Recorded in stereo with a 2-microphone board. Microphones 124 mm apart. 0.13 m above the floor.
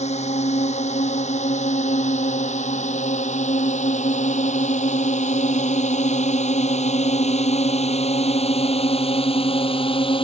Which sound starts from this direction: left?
A drone, at 0.0 s.